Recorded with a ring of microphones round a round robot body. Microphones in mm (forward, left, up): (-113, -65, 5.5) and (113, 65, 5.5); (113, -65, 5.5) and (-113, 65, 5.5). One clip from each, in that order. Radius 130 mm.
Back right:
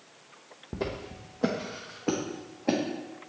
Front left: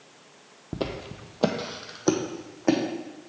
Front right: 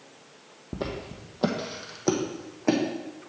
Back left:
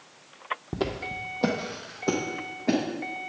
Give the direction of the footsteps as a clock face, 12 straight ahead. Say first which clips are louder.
Front left 2 dB, back left 1 dB; 9 o'clock.